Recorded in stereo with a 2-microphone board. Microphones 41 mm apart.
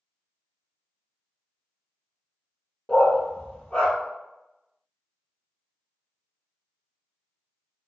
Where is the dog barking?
25° left (ahead or behind), 0.7 m.